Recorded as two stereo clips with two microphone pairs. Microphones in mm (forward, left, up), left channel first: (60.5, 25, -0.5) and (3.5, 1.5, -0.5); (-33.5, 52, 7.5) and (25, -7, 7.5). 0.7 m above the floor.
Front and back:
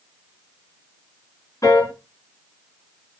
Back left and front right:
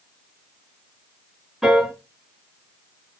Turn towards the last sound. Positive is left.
turn(degrees=45)